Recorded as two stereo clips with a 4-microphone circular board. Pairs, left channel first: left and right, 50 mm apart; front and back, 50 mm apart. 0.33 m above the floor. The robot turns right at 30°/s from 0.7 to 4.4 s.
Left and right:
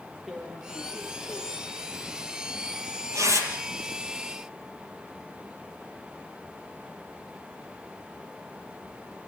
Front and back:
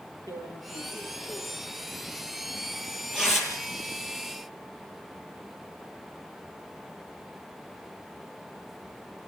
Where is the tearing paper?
175° right, 6.5 m; by 3.5 s 95° right, 6.5 m.